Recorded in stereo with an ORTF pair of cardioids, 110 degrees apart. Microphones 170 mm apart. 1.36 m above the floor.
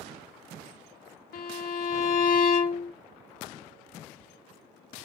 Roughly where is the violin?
Ahead left.